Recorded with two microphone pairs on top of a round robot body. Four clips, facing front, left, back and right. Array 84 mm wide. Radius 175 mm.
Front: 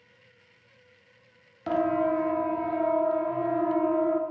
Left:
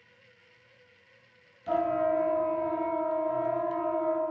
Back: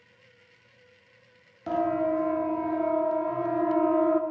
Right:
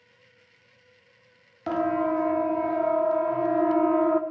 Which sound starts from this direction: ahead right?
A siren, at 1.7 s.